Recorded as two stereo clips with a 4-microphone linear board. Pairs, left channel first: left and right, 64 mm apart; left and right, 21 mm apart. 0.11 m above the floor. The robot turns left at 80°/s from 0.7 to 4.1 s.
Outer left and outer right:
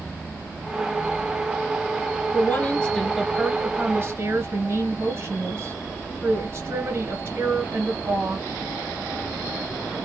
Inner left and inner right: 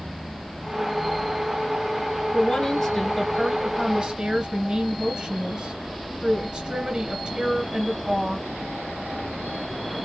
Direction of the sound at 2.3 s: 55° left.